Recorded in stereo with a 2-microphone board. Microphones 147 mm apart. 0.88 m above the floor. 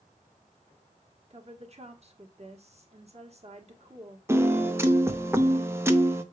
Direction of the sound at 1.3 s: 45° right (ahead or behind).